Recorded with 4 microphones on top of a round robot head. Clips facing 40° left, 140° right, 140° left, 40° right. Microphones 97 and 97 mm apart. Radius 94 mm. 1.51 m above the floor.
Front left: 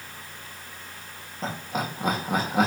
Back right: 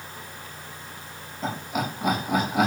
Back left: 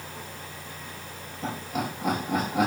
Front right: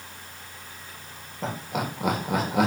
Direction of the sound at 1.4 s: 20° right.